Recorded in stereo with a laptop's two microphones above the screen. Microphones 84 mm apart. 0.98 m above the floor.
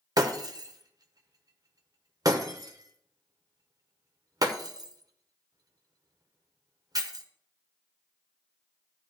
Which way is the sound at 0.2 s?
50° right (ahead or behind).